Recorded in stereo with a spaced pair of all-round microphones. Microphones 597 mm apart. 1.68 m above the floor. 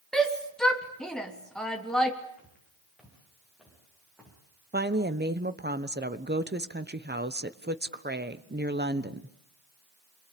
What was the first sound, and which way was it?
A shout, centre (ahead or behind).